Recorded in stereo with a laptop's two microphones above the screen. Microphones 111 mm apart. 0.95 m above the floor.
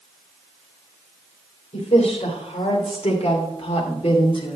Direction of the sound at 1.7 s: 85° left.